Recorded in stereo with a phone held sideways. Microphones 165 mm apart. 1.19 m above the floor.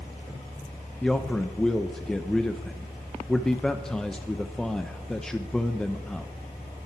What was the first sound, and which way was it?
A man speaking, 5° left (ahead or behind).